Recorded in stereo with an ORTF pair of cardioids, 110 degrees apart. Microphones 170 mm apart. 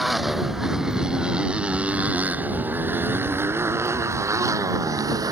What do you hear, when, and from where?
0.0 s a motorcycle: straight ahead; by 5.3 s 20° right